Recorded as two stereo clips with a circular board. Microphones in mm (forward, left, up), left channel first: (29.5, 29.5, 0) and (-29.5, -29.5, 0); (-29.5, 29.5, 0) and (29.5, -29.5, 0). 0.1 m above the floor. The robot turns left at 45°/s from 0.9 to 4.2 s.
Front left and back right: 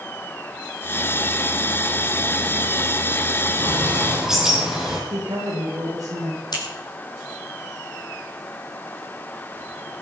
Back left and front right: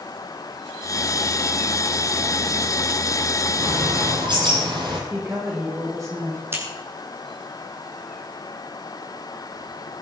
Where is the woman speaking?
95° right, 8.5 m.